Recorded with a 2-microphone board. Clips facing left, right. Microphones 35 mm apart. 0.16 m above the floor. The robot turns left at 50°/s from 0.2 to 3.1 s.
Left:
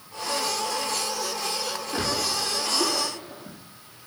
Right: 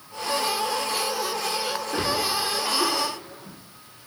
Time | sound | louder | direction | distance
1.9 | a splash | right 2 dB | 15° right (ahead or behind) | 4 m